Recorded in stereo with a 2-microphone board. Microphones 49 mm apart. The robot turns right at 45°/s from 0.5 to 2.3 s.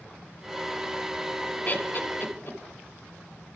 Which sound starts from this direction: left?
Laughter, at 1.6 s.